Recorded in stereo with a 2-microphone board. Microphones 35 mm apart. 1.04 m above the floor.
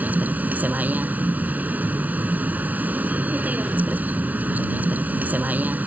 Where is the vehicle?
50° right (ahead or behind).